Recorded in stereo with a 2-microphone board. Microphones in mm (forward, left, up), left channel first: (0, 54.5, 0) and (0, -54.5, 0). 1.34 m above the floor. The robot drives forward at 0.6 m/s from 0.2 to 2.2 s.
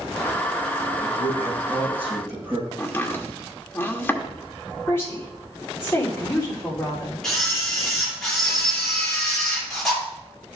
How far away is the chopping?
About 1.2 m.